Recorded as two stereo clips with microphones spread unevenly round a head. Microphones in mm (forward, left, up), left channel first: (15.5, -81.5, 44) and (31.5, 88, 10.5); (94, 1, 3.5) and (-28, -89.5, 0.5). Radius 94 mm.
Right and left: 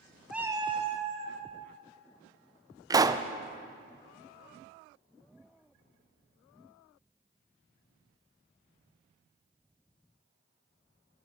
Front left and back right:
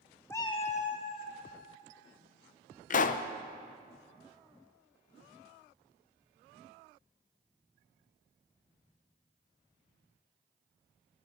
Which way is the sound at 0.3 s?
20° right.